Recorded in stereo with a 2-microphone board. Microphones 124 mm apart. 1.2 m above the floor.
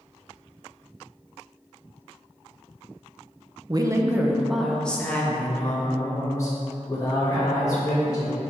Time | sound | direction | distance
3.7 | a woman speaking | 35° right (ahead or behind) | 0.8 m